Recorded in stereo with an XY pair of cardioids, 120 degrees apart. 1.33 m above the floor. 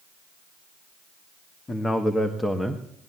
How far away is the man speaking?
About 1.4 m.